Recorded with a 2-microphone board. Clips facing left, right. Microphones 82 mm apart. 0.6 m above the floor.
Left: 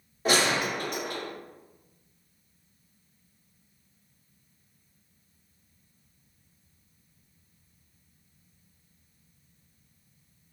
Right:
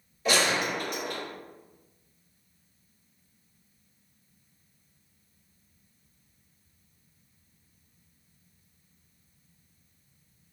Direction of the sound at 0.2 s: 45° left (ahead or behind).